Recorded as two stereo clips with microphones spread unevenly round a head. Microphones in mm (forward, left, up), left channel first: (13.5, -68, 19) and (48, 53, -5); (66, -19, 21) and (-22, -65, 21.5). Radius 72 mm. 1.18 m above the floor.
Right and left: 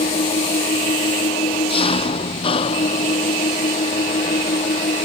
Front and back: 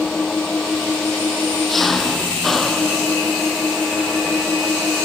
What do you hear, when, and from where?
0.0 s an engine running: 60° right